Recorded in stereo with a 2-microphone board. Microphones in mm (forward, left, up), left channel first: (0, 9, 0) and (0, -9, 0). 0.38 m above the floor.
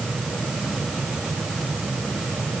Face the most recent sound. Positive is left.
No sound to turn to.